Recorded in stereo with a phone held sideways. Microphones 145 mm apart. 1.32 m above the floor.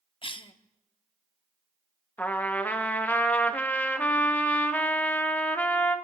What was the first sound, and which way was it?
A cough, 35° left (ahead or behind).